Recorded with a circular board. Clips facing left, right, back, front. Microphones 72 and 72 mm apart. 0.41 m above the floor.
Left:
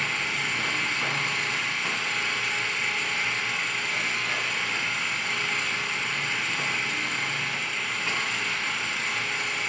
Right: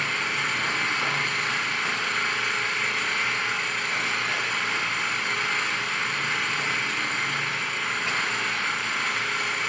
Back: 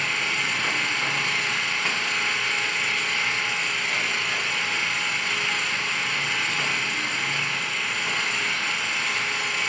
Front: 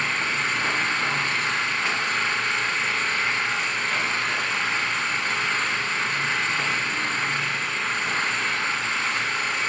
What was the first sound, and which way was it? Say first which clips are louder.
An engine running: right 2 dB, front 2 dB; 50° right.